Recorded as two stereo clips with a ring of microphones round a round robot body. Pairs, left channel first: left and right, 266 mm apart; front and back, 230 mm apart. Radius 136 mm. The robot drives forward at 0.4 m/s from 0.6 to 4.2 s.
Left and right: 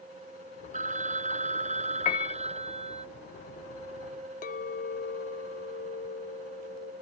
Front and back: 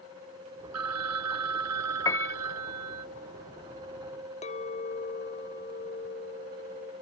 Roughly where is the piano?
Ahead left.